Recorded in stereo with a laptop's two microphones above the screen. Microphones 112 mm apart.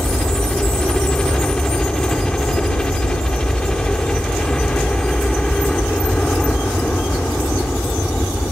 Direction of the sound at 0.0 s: 10° left (ahead or behind).